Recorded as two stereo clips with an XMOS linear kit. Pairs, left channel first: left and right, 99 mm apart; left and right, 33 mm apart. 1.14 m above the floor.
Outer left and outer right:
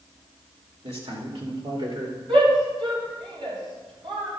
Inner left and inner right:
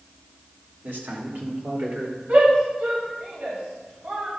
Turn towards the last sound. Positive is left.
turn(degrees=-70)  # may be behind; listen again after turning